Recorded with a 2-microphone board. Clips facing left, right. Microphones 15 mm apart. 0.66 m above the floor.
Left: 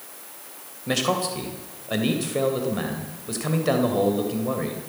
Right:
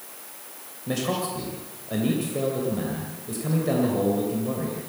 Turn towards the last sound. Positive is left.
turn(degrees=35)  # may be behind; listen again after turning